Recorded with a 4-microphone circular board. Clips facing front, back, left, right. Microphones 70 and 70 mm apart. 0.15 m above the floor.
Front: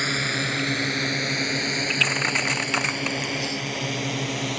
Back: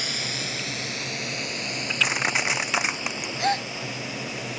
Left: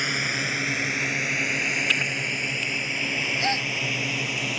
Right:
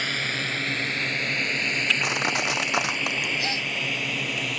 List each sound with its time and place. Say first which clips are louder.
0.0 s a drone: front 7 dB, left 1 dB; 15° left; by 4.6 s 5° left
2.0 s crushing: back 2 dB, right 4 dB; 95° right
3.4 s a gasp: back 5 dB, left 3 dB; 155° left